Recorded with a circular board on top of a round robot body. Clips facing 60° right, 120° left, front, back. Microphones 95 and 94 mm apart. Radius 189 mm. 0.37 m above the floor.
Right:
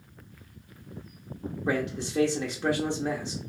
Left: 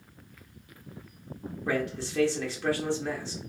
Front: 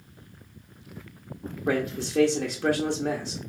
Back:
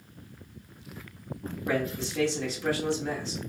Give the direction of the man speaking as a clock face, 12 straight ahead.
12 o'clock.